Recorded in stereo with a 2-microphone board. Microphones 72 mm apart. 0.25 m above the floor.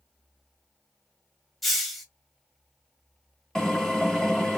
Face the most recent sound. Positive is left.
turn(degrees=5)  # may be behind; listen again after turning